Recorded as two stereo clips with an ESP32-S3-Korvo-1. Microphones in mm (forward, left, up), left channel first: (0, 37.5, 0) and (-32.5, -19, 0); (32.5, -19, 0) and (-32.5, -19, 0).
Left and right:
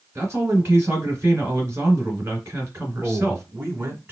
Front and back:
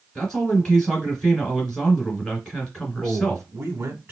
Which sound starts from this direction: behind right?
A man speaking, at 3.0 s.